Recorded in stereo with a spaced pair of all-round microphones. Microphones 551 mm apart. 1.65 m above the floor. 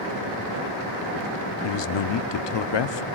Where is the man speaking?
55° left (ahead or behind), 0.5 m.